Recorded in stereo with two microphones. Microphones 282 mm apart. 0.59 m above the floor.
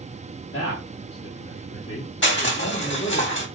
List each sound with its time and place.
0.5 s a man speaking: 45° left (ahead or behind), 1.0 m
2.2 s crushing: 40° left (ahead or behind), 1.0 m